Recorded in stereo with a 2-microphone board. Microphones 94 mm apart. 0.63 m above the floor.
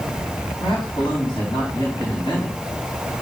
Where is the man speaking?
50° left (ahead or behind), 4 m.